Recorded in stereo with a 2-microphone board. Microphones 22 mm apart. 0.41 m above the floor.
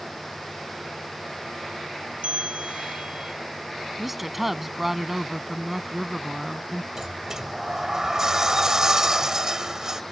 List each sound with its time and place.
2.2 s a bell: 80° right
4.0 s a woman speaking: 10° right (ahead or behind)
7.0 s a sliding door: 30° right (ahead or behind)